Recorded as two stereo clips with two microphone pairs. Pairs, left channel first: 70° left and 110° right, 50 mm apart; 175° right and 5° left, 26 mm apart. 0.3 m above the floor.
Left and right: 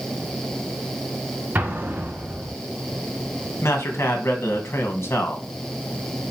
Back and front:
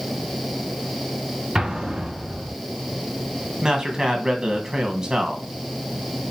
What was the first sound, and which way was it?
An explosion, 60° right.